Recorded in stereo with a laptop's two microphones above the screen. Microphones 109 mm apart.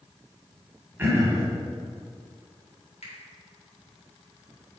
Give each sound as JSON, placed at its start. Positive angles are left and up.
{"t": 1.0, "sound": "throat clearing", "side_deg": -20, "distance_m": 1.4}
{"t": 3.0, "sound": "a finger snap", "side_deg": 80, "distance_m": 2.5}